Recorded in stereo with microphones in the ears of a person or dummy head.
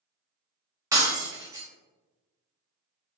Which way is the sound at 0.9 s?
15° right (ahead or behind).